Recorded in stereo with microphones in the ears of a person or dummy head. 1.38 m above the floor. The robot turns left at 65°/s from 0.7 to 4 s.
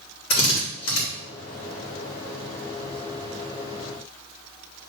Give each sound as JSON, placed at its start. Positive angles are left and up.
{"t": 0.3, "sound": "a drill", "side_deg": 55, "distance_m": 3.0}